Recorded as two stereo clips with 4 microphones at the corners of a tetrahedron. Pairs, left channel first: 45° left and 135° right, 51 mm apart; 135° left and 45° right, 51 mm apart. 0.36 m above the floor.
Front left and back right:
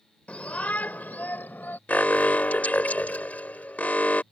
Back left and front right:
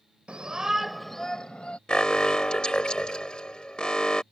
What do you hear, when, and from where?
0.3 s a shout: 5° left; by 1.8 s 75° left
1.9 s an alarm: 75° left